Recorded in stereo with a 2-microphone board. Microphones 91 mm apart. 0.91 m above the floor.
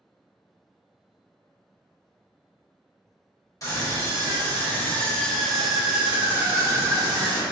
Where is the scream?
40° left (ahead or behind), 1.6 m; by 7.4 s 50° right (ahead or behind), 1.2 m.